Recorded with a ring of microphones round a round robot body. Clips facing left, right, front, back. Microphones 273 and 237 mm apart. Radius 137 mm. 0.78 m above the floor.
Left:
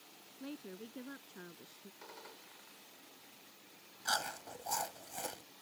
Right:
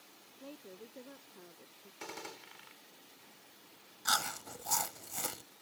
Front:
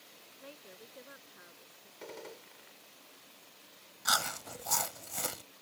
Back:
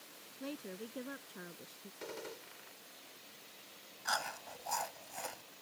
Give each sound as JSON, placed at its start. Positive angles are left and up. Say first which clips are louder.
{"t": 0.4, "sound": "a woman speaking", "louder": "left 4 dB, back 10 dB", "azimuth_deg": 145}
{"t": 2.0, "sound": "a gunshot", "louder": "right 11 dB, even", "azimuth_deg": -95}
{"t": 4.0, "sound": "chewing", "louder": "even, front 3 dB", "azimuth_deg": -25}